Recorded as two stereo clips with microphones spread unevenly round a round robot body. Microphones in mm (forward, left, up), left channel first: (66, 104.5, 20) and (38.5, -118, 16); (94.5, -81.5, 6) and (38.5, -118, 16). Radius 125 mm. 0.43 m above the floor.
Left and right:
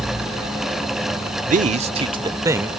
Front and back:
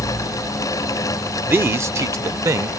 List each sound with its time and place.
1.5 s a man speaking: 100° right; by 2.7 s 175° right